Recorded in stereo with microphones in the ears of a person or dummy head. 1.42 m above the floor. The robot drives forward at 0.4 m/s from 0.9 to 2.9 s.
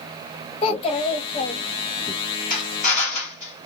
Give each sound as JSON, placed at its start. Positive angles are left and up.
{"t": 0.6, "sound": "a child speaking", "side_deg": 30, "distance_m": 1.4}
{"t": 2.5, "sound": "a drill", "side_deg": 40, "distance_m": 2.5}